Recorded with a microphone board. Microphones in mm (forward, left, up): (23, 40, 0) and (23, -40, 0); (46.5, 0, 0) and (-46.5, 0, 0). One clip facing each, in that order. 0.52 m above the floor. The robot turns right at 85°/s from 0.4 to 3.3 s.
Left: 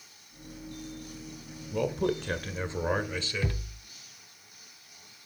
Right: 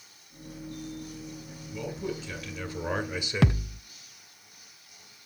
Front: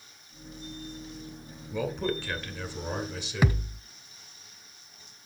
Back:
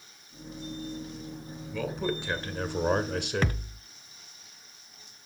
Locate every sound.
1.7 s a man speaking: 65° left, 1.6 m; by 3.6 s 160° right, 1.6 m
3.4 s a thud: 80° right, 0.6 m